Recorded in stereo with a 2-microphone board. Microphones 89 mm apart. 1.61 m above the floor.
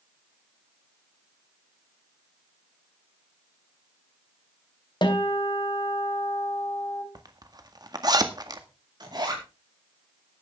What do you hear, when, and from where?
5.0 s a guitar: 60° left (ahead or behind), 3 m
7.2 s a zipper: 50° right (ahead or behind), 1.8 m
9.0 s a zipper: 50° right (ahead or behind), 4.5 m